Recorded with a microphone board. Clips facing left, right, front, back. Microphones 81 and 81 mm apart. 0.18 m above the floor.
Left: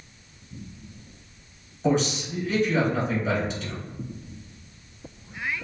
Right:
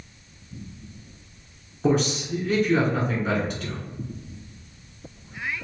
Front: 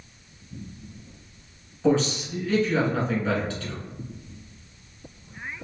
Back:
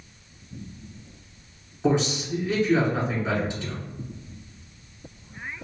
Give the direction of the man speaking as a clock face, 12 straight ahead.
4 o'clock.